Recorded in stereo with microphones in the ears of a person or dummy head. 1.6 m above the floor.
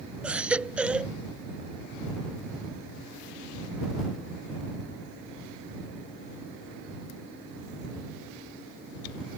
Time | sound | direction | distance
0.2 | a baby crying | 5° right (ahead or behind) | ?